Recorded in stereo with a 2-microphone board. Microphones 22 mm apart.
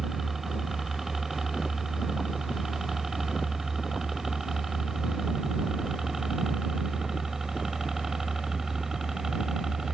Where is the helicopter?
15° right (ahead or behind); by 9.9 s 20° right (ahead or behind).